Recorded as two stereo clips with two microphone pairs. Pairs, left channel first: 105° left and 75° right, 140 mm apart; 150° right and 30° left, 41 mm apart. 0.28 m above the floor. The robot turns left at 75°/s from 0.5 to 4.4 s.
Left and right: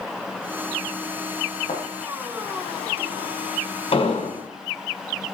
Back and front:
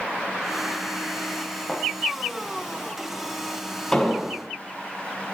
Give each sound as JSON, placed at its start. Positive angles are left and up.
{"t": 1.7, "sound": "a thud", "azimuth_deg": 145, "distance_m": 5.5}
{"t": 3.9, "sound": "an explosion", "azimuth_deg": 135, "distance_m": 2.0}